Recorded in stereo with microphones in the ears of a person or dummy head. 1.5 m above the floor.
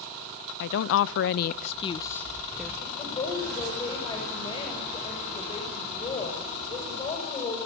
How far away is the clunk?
No clunk in this recording.